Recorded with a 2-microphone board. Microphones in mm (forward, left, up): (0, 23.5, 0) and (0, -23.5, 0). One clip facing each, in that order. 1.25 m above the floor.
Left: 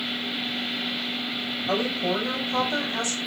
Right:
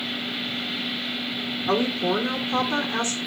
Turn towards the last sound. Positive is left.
turn(degrees=-40)  # may be behind; listen again after turning